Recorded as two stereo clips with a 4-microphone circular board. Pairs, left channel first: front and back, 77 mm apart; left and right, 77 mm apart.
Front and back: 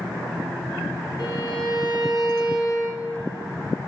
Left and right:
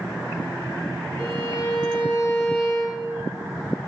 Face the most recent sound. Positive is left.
turn(degrees=35)